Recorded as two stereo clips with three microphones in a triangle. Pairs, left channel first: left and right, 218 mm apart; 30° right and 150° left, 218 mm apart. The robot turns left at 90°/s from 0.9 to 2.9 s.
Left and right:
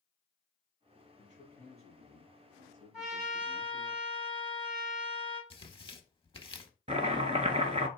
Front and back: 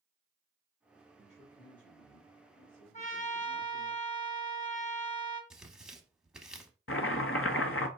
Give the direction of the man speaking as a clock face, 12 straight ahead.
8 o'clock.